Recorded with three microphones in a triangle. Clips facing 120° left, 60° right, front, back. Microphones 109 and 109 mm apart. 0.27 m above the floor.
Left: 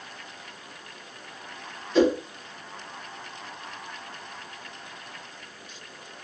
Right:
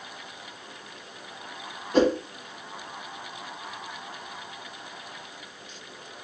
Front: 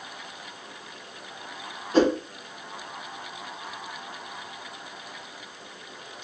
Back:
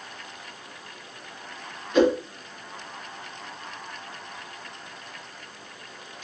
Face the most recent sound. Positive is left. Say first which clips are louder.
# left 1 dB, back 1 dB
turn(degrees=-45)